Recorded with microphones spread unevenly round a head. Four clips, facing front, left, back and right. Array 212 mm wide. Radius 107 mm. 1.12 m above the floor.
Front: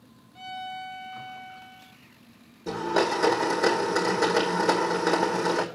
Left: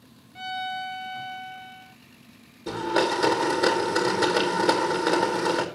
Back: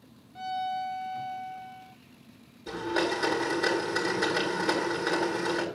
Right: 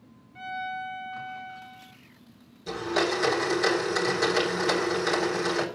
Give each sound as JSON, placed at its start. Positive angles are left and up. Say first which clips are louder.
{"t": 0.3, "sound": "a violin", "louder": "left 2 dB, back 5 dB", "azimuth_deg": 160, "distance_m": 0.8}
{"t": 2.7, "sound": "a blender", "louder": "left 3 dB, front 4 dB", "azimuth_deg": 40, "distance_m": 4.0}